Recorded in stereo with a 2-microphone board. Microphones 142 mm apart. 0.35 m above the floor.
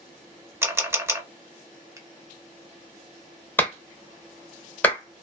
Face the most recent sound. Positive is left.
turn(degrees=15)  # may be behind; listen again after turning